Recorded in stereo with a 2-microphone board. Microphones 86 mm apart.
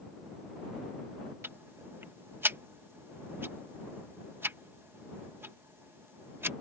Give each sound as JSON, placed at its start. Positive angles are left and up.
{"t": 1.4, "sound": "ticking", "side_deg": -25}